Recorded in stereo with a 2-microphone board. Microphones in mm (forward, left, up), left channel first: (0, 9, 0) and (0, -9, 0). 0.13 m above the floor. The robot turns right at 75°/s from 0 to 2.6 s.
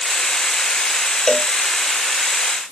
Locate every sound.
1.3 s a cowbell: 40° left (ahead or behind); by 1.5 s 55° left (ahead or behind)